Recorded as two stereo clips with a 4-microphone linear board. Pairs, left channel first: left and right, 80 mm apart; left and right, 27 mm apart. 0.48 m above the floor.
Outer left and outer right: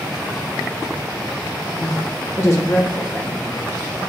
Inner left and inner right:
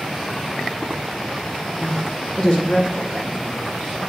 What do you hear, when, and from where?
1.7 s a woman speaking: 35° left (ahead or behind), 1.1 m